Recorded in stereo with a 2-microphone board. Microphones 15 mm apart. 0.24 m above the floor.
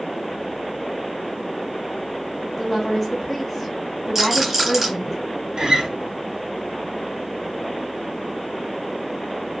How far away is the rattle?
About 1.3 m.